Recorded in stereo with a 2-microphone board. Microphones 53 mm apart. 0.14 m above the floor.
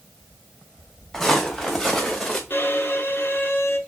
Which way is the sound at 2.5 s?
40° left (ahead or behind).